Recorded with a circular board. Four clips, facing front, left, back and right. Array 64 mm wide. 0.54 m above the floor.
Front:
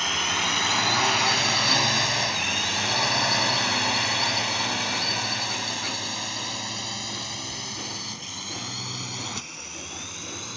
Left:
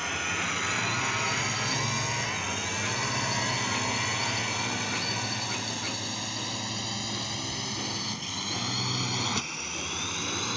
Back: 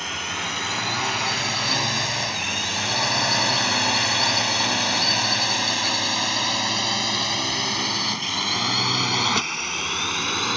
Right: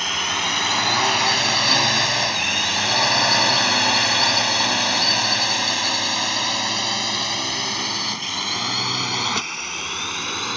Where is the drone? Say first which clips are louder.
Right 6 dB, front 2 dB; 70° right; by 10.6 s 150° right.